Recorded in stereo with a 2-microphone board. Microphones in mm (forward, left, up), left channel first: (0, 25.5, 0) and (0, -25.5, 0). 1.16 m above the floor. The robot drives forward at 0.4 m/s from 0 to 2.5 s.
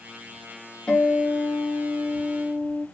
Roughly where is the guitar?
Left.